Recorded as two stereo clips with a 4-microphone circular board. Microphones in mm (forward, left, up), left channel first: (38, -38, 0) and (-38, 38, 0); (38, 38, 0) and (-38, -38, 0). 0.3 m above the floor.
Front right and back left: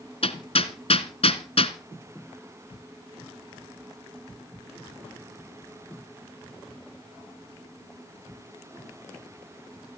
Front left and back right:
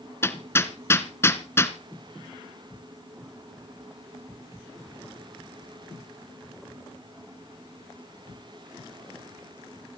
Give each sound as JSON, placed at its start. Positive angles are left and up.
{"t": 0.2, "sound": "hammering", "azimuth_deg": -20, "distance_m": 1.2}